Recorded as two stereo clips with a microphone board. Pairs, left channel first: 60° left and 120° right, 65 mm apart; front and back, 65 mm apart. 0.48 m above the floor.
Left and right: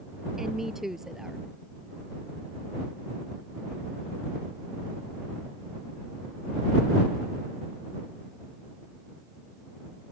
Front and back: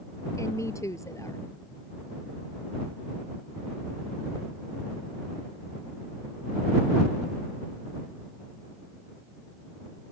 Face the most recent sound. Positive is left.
turn(degrees=-35)